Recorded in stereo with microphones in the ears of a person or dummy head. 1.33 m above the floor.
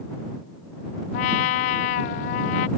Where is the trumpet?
50° left (ahead or behind).